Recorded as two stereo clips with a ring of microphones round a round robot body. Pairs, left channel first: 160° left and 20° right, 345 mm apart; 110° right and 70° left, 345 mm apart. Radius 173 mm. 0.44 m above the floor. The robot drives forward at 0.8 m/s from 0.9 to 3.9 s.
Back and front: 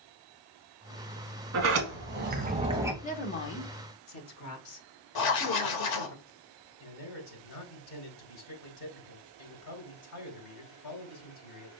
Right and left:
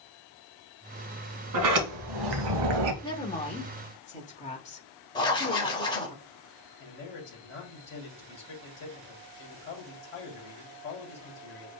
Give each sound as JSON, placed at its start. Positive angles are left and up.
{"t": 1.5, "sound": "a sliding door", "azimuth_deg": 30, "distance_m": 1.8}
{"t": 3.0, "sound": "a woman speaking", "azimuth_deg": -170, "distance_m": 1.0}
{"t": 5.2, "sound": "writing", "azimuth_deg": 170, "distance_m": 1.1}
{"t": 6.8, "sound": "a man speaking", "azimuth_deg": -165, "distance_m": 2.5}